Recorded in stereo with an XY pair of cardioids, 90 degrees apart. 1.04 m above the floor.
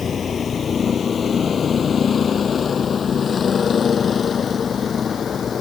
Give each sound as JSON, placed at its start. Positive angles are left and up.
{"t": 0.0, "sound": "a vehicle", "azimuth_deg": 45}